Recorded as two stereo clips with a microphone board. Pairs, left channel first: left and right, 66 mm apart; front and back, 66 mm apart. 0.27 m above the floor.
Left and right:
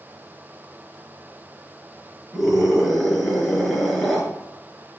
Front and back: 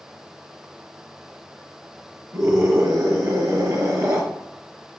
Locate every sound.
2.3 s a scream: straight behind, 4.5 m